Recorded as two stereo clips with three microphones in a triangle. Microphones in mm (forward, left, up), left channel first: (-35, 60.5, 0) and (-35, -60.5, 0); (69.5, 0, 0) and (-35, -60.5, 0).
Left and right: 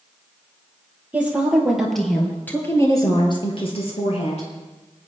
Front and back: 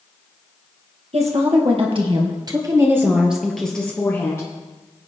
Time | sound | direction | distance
1.1 | a woman speaking | 165° right | 3 m